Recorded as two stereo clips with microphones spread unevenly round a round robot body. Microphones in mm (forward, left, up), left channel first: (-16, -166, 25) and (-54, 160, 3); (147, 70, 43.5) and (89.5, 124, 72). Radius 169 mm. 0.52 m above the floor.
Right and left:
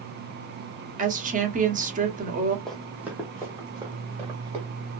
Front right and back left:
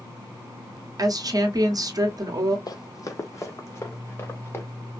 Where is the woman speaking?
120° left, 1.3 m.